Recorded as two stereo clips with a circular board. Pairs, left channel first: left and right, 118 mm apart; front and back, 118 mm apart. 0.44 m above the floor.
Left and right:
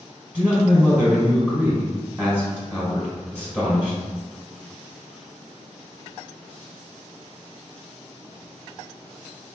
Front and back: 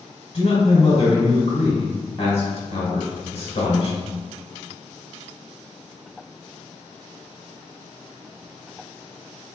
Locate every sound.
0.3 s a man speaking: 10° right, 1.1 m